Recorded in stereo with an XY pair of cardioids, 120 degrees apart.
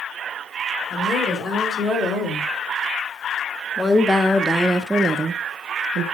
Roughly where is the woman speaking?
Ahead left.